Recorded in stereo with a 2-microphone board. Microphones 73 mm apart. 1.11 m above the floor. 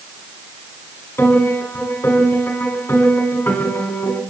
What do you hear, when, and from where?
1.2 s a piano: 35° left (ahead or behind), 5 m